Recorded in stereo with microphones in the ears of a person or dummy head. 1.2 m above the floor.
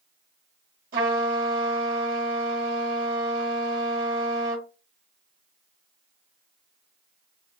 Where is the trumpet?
50° right (ahead or behind), 2 m.